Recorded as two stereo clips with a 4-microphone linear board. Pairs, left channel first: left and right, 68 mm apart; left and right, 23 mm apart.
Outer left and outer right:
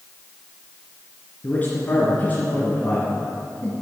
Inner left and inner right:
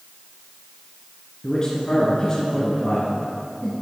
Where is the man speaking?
25° left (ahead or behind), 2.5 m.